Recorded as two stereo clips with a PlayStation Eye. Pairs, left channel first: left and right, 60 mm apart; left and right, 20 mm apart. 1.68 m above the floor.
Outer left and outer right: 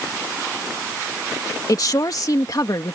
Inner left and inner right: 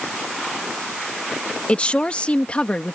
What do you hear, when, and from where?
1.7 s a woman speaking: 80° left